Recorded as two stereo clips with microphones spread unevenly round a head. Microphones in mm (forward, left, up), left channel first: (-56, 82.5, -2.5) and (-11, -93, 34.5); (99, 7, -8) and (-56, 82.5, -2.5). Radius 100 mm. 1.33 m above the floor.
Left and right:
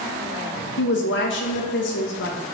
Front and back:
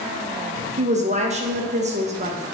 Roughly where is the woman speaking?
Left.